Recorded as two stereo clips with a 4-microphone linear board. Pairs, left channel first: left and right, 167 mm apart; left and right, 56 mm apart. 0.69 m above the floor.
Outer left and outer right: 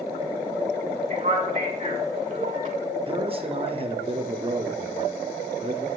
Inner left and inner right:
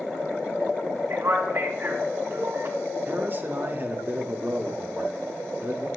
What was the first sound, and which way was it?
A man speaking, 45° right (ahead or behind).